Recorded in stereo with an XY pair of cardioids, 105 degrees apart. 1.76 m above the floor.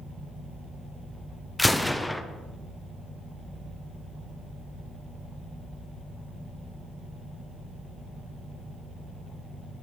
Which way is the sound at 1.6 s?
5° left.